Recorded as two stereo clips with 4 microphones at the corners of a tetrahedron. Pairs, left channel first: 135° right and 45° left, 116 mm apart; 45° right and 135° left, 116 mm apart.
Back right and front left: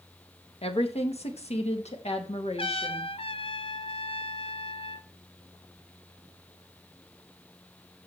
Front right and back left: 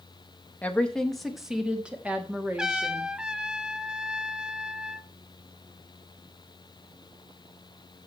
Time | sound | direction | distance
0.6 | a woman speaking | 120° right | 1.4 m
2.6 | a trumpet | 145° right | 0.6 m